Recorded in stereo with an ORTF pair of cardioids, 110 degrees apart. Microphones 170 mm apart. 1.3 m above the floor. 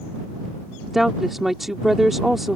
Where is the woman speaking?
Straight ahead.